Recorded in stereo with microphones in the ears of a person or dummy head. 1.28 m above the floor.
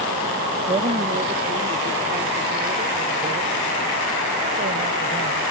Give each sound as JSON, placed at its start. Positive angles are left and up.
{"t": 0.7, "sound": "a woman speaking", "side_deg": -25}